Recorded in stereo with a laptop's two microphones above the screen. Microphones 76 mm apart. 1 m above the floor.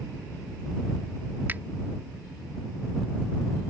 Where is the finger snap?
25° right (ahead or behind).